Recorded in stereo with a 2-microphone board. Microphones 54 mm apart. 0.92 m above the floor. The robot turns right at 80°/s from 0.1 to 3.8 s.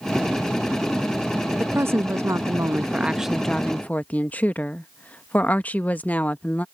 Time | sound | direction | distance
1.6 | a woman speaking | 140° right | ?